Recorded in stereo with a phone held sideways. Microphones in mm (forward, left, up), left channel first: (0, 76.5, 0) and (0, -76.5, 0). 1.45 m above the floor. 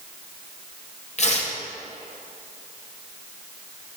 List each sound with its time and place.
1.2 s tearing paper: 50° left (ahead or behind), 1.1 m